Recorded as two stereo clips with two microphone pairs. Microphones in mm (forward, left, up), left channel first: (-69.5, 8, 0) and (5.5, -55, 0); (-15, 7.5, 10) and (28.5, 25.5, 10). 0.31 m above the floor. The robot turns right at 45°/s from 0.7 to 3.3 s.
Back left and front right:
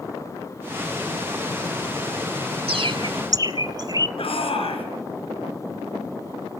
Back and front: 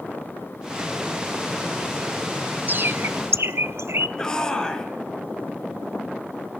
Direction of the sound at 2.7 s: 20° right.